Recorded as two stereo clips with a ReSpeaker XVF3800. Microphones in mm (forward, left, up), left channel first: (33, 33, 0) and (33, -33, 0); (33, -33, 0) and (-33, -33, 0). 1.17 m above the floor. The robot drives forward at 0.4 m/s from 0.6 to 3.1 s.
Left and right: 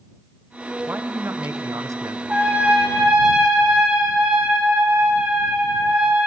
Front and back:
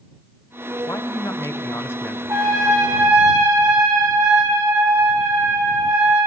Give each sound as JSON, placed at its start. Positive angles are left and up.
{"t": 0.9, "sound": "a man speaking", "azimuth_deg": -35, "distance_m": 1.0}
{"t": 2.3, "sound": "a trumpet", "azimuth_deg": -155, "distance_m": 2.0}